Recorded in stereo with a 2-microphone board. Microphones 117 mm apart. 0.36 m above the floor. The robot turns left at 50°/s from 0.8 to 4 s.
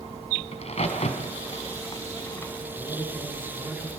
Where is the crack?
65° left (ahead or behind), 3.5 m; by 2.5 s 20° left (ahead or behind), 3.5 m.